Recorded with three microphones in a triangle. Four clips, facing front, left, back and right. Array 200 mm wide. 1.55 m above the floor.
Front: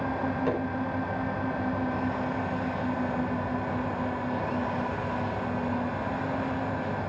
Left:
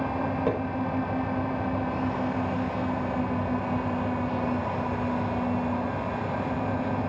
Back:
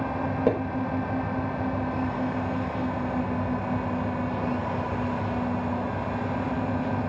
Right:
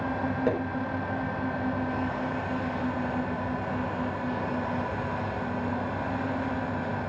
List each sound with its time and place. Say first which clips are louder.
0.5 s hammering: right 1 dB, back 7 dB; 170° right, 6 m